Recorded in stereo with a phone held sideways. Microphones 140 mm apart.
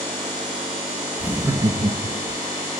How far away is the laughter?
About 0.8 m.